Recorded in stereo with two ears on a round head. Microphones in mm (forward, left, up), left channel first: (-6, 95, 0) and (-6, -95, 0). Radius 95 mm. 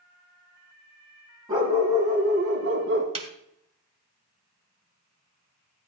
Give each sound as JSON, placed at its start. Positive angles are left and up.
{"t": 1.5, "sound": "a dog barking", "side_deg": -20, "distance_m": 3.0}
{"t": 3.1, "sound": "a snare drum", "side_deg": -25, "distance_m": 1.2}